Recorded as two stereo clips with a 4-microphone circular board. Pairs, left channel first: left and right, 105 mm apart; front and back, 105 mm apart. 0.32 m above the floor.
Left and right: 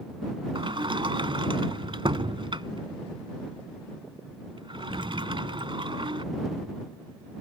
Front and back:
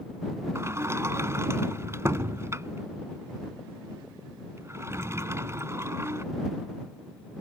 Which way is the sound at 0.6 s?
120° right.